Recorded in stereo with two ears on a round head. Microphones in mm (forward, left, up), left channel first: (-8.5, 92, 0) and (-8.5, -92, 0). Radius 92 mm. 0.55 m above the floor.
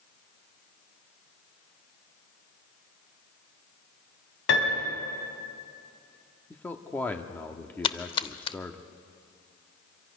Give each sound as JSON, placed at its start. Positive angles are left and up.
{"t": 4.5, "sound": "a piano", "side_deg": 70, "distance_m": 4.5}
{"t": 6.5, "sound": "a man speaking", "side_deg": 10, "distance_m": 1.1}
{"t": 7.8, "sound": "a splash", "side_deg": 25, "distance_m": 0.7}